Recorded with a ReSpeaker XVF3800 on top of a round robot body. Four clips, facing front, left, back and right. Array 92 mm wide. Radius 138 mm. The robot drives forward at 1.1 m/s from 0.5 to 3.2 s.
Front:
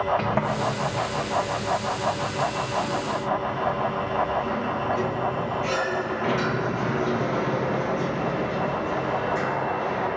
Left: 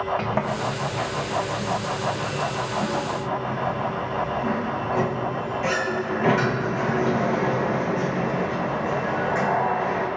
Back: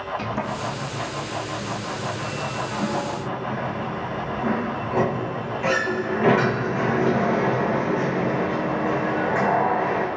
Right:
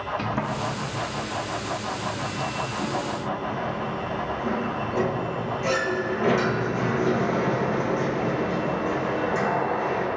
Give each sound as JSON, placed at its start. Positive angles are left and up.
{"t": 0.2, "sound": "a sliding door", "azimuth_deg": 45, "distance_m": 1.7}